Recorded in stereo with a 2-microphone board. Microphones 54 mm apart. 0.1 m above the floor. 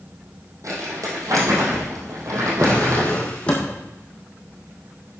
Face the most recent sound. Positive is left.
turn(degrees=20)  # may be behind; listen again after turning